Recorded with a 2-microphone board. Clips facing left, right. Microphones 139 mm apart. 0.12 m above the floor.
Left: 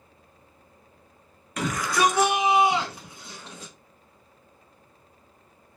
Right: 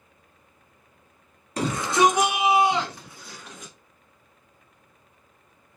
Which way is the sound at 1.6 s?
35° right (ahead or behind).